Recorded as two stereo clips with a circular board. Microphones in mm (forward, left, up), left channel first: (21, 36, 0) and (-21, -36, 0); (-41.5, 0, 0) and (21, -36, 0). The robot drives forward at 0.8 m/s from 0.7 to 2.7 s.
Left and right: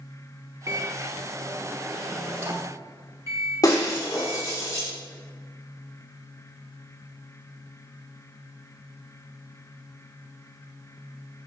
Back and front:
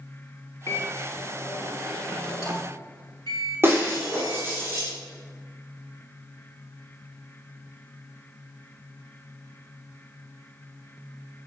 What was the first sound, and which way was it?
A microwave, 160° right.